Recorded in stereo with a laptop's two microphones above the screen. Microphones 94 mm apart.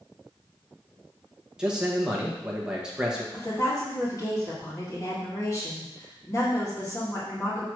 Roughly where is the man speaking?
Centre.